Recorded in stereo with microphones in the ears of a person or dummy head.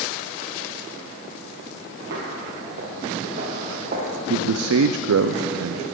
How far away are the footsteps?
About 3 m.